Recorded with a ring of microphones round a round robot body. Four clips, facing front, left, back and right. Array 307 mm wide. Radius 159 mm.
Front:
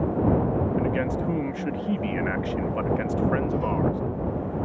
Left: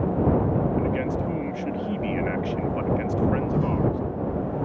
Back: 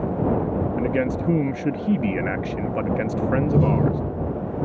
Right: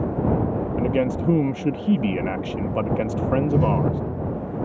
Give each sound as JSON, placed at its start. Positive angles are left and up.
{"t": 0.8, "sound": "a man speaking", "azimuth_deg": -120}
{"t": 3.3, "sound": "a door slam", "azimuth_deg": -150}